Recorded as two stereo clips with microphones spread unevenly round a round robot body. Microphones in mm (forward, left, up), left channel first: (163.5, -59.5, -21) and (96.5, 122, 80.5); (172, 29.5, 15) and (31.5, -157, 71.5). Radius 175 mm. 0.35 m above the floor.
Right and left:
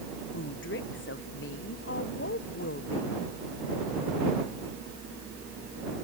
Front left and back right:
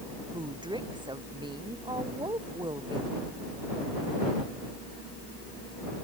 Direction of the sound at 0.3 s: 55° right.